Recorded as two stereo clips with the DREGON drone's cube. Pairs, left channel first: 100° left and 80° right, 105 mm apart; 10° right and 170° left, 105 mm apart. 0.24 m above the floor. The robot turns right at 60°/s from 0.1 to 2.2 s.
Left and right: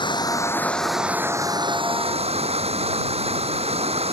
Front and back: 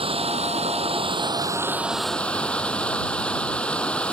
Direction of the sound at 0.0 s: 145° left.